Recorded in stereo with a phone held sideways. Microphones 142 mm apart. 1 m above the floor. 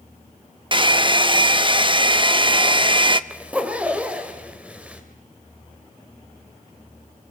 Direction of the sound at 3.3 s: 10° right (ahead or behind).